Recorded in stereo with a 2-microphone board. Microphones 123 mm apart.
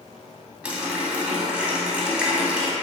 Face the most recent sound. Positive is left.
turn(degrees=-10)  # may be behind; listen again after turning